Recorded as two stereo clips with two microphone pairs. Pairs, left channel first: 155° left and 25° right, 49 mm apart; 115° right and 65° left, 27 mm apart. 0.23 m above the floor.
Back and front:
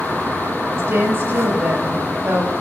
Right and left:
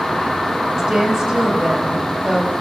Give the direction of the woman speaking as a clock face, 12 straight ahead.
12 o'clock.